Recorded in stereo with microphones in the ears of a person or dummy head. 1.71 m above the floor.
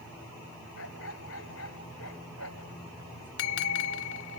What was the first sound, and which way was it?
A dog barking, 85° left.